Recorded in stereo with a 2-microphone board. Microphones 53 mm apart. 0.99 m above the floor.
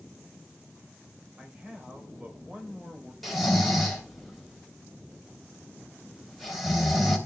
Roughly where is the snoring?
Centre.